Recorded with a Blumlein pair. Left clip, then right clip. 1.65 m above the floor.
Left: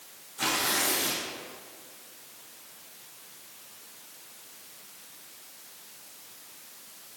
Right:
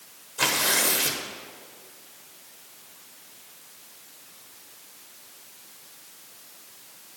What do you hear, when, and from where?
0.4 s tearing paper: 65° right, 1.0 m